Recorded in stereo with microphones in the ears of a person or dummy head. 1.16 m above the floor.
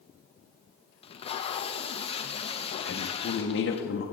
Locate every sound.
1.0 s tape being pulled: 30° left (ahead or behind), 0.7 m
2.9 s a woman speaking: 60° left (ahead or behind), 0.9 m